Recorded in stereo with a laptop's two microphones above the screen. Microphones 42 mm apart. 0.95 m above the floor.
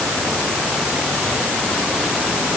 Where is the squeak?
No squeak in this recording.